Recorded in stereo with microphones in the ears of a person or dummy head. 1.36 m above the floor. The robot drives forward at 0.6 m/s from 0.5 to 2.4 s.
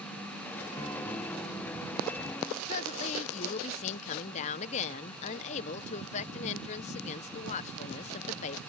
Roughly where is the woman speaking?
Left.